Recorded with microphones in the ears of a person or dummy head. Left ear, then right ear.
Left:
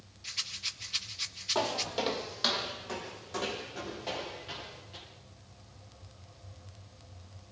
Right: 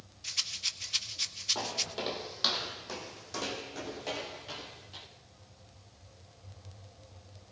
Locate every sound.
0.2 s a rattle: 10° right (ahead or behind), 1.2 m
1.6 s footsteps: 25° left (ahead or behind), 1.6 m; by 5.0 s 25° right (ahead or behind), 5.5 m